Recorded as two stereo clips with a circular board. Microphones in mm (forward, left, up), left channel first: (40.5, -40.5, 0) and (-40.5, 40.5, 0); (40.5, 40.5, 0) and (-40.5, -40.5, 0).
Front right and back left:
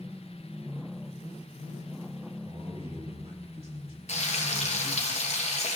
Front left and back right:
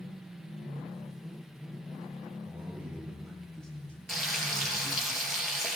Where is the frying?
45° right, 2.5 m.